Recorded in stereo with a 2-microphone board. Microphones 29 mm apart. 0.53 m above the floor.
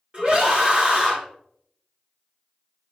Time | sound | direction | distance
0.1 | a scream | 35° right (ahead or behind) | 1.8 m